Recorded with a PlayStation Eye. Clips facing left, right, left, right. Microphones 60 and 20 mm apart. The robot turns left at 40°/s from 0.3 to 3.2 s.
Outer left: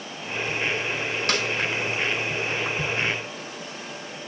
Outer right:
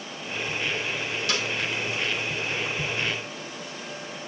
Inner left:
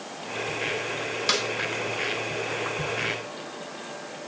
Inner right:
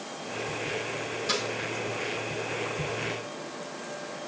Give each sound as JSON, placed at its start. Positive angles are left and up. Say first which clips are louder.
{"t": 1.3, "sound": "a snare drum", "louder": "outer left 3 dB, inner left 5 dB", "side_deg": 55, "distance_m": 1.6}